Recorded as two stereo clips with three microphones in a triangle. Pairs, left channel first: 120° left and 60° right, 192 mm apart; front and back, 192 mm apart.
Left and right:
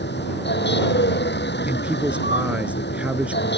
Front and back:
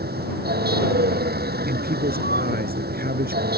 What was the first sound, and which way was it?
A vehicle, 145° left.